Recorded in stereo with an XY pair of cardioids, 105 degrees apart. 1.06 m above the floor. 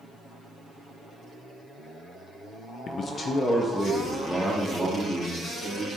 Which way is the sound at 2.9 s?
60° left.